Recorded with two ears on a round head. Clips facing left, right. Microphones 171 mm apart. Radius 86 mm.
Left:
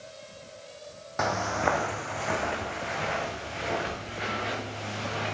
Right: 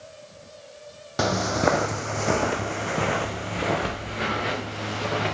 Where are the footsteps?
40° right (ahead or behind), 1.1 m; by 5.3 s 65° right (ahead or behind), 3 m.